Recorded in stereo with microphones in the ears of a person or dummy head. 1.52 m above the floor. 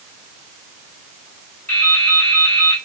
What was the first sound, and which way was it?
Dripping, 15° left (ahead or behind).